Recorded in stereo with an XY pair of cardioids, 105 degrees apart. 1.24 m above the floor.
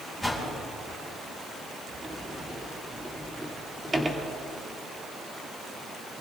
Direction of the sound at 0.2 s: 5° right.